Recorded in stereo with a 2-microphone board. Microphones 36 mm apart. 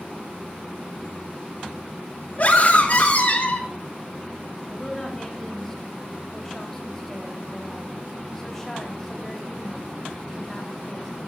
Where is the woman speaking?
10° left (ahead or behind), 2.5 m.